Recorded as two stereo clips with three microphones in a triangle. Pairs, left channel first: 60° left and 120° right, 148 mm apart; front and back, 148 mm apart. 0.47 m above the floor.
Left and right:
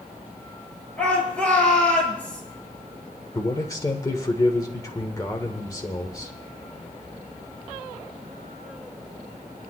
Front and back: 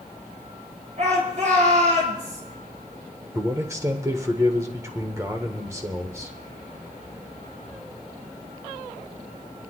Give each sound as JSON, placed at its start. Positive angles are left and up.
{"t": 1.0, "sound": "a shout", "azimuth_deg": 140, "distance_m": 10.0}
{"t": 3.4, "sound": "a man speaking", "azimuth_deg": 115, "distance_m": 1.3}